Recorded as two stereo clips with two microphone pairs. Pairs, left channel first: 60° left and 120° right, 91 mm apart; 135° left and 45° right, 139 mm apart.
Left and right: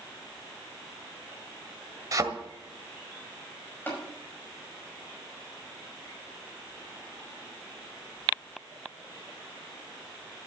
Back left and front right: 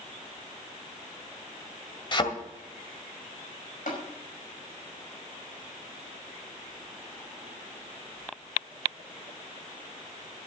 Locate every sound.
2.1 s a thud: 170° right, 1.7 m
3.9 s tapping: 130° left, 5 m